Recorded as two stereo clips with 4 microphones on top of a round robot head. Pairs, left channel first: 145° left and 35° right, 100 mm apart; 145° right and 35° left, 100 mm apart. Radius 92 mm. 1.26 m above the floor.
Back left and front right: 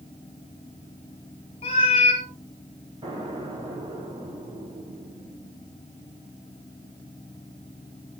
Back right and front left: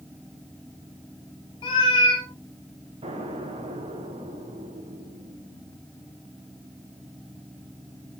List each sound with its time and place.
1.6 s a cat meowing: 175° left, 1.9 m
3.0 s an explosion: 10° left, 4 m